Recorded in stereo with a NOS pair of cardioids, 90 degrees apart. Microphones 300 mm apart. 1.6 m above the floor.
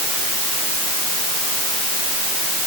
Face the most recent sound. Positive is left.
No sound to turn to.